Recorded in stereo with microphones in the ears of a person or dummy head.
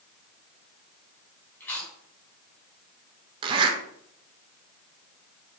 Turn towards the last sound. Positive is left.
turn(degrees=-30)  # may be behind; listen again after turning